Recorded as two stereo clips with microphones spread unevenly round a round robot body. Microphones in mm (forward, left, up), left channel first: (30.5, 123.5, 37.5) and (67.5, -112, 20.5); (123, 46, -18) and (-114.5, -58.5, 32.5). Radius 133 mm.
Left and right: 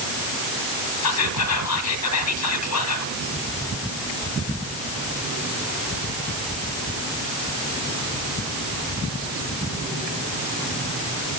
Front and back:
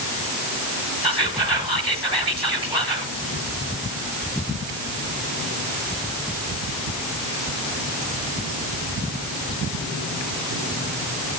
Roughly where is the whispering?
Behind left.